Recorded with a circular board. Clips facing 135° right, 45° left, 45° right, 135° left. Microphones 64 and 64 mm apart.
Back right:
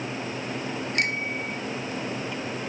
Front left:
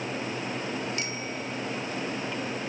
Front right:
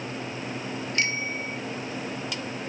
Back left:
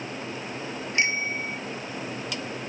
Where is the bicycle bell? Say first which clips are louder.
Back right 6 dB, back left 3 dB; 160° right.